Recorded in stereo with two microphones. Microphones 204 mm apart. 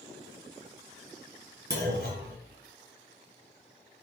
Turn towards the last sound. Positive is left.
turn(degrees=-60)  # may be behind; listen again after turning